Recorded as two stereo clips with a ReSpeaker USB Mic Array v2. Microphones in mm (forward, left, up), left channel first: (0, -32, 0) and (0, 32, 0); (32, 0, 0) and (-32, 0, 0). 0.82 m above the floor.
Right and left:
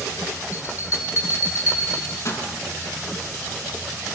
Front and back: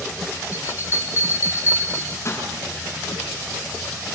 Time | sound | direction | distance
0.5 | a bell | 50° right | 8 m